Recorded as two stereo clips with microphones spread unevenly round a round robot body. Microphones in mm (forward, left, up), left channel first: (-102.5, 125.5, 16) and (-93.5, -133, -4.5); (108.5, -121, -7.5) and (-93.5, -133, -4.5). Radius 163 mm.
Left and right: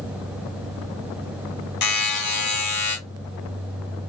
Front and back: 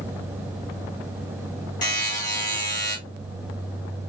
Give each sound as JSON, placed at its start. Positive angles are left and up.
{"t": 1.8, "sound": "a buzzer", "azimuth_deg": 70, "distance_m": 1.6}